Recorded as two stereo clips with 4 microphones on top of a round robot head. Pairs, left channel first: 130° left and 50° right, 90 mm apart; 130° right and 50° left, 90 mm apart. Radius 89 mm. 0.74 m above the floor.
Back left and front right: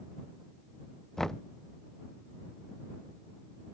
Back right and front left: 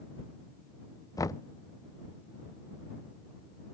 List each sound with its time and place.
1.2 s knocking: 145° right